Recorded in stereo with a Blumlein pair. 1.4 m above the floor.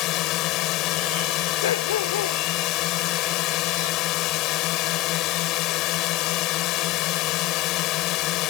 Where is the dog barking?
60° left.